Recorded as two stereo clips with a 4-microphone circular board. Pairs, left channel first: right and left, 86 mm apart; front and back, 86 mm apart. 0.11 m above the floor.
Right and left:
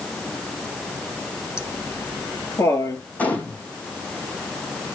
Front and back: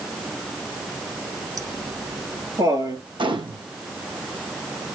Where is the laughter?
140° right, 3 m.